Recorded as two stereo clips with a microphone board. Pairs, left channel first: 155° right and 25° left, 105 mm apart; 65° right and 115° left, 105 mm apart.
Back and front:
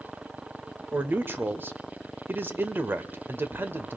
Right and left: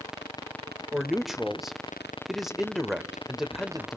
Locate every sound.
0.9 s a man speaking: 25° left, 1.0 m